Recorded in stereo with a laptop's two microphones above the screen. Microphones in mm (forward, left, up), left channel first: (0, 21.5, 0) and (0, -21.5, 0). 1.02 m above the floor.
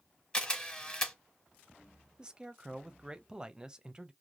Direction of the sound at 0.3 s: 25° left (ahead or behind).